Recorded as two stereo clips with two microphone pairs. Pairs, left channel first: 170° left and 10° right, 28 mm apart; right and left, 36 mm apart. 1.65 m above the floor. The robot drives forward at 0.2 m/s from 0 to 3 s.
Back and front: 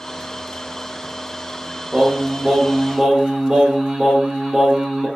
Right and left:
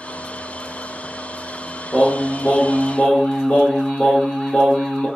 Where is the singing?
60° right, 0.8 m; by 5.1 s 85° right, 0.8 m.